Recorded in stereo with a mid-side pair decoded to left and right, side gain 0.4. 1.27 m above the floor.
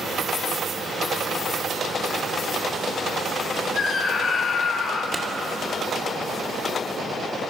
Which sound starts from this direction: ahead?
A clap, at 5.1 s.